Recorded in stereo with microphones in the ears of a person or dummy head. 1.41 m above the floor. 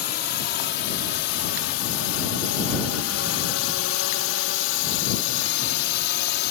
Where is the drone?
50° left (ahead or behind); by 6.5 s 60° left (ahead or behind).